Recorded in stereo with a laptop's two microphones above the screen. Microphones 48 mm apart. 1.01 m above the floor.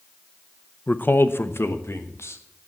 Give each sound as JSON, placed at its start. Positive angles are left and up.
{"t": 0.9, "sound": "a man speaking", "side_deg": 40, "distance_m": 0.6}